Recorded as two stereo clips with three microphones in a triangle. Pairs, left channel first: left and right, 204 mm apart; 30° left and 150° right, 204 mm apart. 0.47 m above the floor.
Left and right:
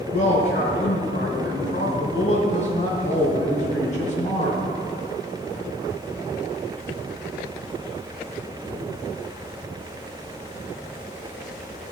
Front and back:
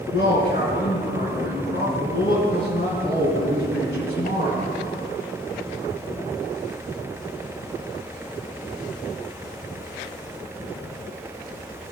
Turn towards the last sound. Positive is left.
turn(degrees=40)